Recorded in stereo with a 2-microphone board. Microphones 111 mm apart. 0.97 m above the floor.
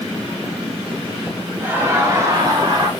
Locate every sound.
1.6 s laughter: 20° right (ahead or behind), 1.0 m; by 2.9 s 35° right (ahead or behind), 1.6 m